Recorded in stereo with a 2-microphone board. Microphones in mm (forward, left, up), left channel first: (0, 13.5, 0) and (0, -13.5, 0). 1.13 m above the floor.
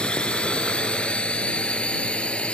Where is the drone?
40° left (ahead or behind); by 2.5 s 45° left (ahead or behind).